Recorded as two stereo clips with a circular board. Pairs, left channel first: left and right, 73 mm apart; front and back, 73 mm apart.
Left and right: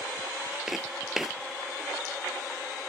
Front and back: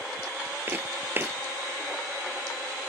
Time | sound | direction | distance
0.7 | footsteps | 170° right | ?